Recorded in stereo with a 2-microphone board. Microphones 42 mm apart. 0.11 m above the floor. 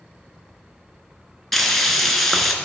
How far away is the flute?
I don't hear a flute.